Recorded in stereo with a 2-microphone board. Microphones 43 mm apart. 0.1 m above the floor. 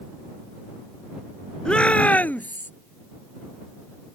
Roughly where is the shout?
Left.